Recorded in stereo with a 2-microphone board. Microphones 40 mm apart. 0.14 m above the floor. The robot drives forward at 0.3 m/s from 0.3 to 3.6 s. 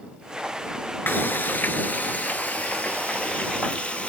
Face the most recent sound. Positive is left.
turn(degrees=30)  # may be behind; listen again after turning